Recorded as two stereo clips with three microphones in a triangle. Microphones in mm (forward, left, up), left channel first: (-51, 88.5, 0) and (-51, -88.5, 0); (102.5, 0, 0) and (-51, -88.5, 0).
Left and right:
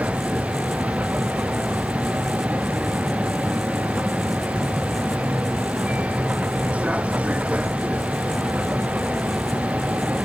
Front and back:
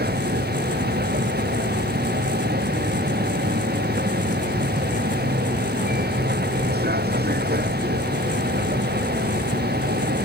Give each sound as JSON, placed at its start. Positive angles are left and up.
{"t": 0.0, "sound": "a vehicle", "azimuth_deg": -170}